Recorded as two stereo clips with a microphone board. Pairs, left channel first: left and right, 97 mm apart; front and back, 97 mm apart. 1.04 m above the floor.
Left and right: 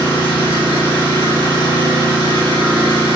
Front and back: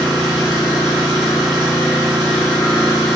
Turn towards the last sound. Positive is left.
turn(degrees=-95)